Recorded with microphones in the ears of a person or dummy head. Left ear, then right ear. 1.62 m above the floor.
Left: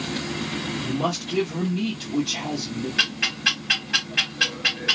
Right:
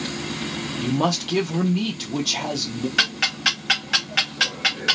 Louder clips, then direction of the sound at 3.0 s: Right 1 dB; 45° right (ahead or behind).